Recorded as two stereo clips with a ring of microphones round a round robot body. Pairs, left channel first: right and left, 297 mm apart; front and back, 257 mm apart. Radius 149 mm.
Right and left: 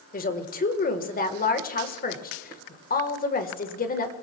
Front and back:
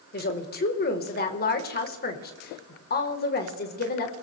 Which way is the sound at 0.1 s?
40° right.